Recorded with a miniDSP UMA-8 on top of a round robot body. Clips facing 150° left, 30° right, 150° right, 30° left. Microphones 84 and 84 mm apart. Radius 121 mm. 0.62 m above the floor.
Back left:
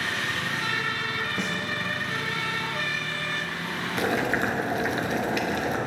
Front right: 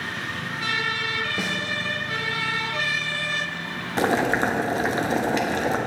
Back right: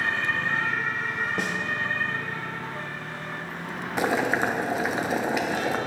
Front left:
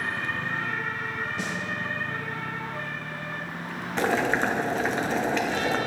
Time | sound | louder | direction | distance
1.4 | a snare drum | front right 2 dB, back right 3 dB | 115° right | 1.3 m
4.0 | boiling | front right 5 dB, even | 75° right | 1.3 m